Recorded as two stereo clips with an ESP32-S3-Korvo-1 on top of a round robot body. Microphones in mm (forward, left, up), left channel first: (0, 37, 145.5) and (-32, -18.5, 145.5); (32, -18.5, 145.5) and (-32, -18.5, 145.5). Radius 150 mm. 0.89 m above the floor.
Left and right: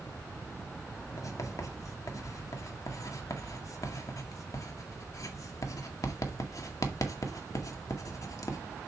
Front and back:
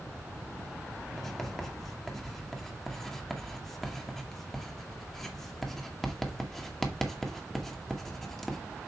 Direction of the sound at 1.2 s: 85° left.